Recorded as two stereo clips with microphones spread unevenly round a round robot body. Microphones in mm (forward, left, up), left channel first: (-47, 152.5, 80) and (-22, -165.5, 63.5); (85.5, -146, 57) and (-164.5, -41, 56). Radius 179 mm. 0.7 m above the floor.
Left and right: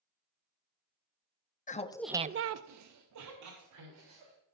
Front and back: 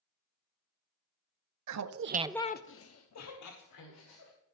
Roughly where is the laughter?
Behind.